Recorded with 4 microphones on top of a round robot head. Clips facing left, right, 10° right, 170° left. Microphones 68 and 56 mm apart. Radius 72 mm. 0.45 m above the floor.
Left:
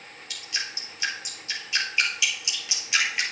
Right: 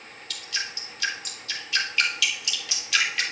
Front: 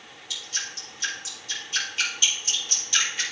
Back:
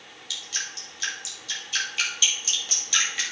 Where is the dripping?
160° left, 3 m.